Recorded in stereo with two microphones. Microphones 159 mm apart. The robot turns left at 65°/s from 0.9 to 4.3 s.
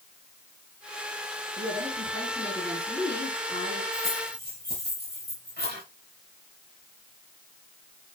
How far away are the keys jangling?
About 9 m.